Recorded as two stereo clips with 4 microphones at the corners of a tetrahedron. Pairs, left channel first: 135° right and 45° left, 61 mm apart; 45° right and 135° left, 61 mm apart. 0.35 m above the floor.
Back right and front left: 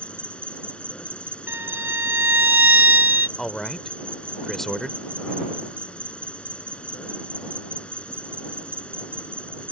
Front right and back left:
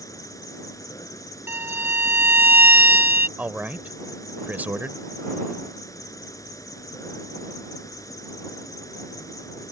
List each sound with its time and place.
0.0 s an insect: 65° right
1.5 s a violin: 90° left
3.4 s a man speaking: 150° left